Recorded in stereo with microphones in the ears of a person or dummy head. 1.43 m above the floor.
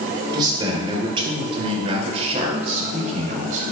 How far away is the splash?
No splash in this recording.